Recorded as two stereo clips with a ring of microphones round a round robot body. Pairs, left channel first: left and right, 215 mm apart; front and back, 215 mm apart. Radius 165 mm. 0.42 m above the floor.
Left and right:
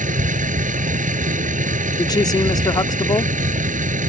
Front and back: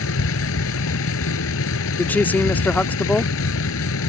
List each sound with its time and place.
0.0 s a vehicle: 35° right
2.0 s a woman speaking: 65° left